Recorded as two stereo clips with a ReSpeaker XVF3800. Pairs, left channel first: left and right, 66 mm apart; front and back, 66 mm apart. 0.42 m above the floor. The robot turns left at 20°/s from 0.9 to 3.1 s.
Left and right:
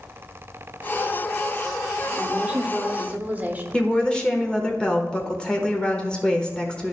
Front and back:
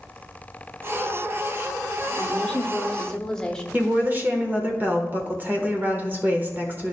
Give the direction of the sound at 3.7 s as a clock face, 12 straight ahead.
7 o'clock.